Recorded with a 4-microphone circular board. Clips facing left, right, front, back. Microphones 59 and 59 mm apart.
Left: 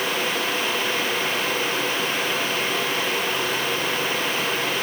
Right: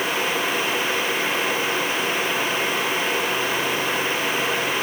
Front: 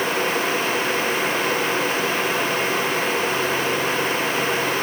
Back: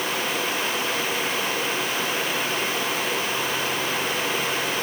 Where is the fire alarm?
No fire alarm in this recording.